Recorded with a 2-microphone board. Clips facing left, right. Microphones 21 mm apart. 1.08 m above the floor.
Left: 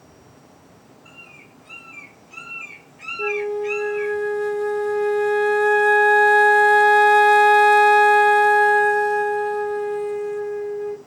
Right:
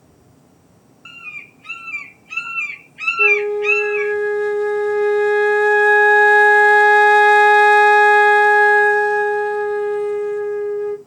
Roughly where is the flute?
Centre.